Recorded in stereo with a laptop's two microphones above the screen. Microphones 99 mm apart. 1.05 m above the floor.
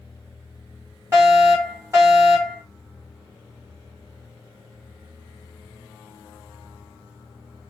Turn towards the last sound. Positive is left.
turn(degrees=-30)  # may be behind; listen again after turning